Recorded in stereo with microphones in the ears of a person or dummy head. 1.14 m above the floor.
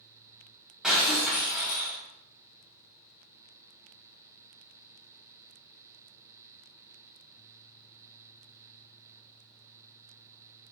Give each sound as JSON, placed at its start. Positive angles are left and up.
{"t": 0.8, "sound": "breaking glass", "side_deg": 0, "distance_m": 3.0}